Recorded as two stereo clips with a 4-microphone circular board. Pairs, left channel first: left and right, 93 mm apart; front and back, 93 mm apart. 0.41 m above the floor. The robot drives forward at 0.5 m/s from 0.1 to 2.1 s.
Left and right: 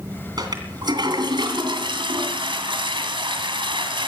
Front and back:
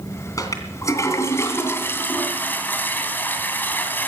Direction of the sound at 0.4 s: 50° right.